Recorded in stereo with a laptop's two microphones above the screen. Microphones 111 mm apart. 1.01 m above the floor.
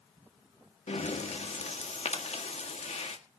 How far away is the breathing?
About 1.7 m.